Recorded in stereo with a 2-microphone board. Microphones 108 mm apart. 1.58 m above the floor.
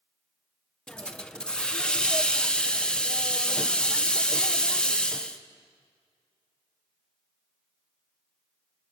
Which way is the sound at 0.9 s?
10° left (ahead or behind).